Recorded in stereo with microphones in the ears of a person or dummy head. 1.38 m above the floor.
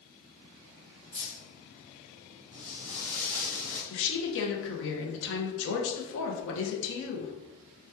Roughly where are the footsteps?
Centre.